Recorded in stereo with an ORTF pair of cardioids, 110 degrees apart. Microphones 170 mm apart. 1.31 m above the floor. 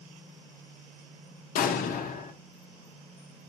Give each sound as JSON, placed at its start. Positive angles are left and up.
{"t": 1.6, "sound": "an explosion", "azimuth_deg": 60, "distance_m": 0.7}